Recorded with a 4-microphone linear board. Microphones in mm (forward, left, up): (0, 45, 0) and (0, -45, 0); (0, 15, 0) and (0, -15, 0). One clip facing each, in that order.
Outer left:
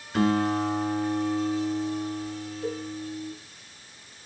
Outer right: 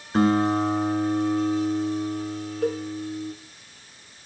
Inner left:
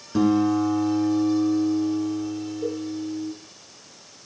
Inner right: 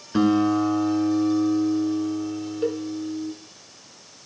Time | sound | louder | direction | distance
0.1 | a guitar | outer right 3 dB, even | 35° right (ahead or behind) | 1.3 m
2.6 | a cowbell | outer right 7 dB, inner right 4 dB | 65° right (ahead or behind) | 0.8 m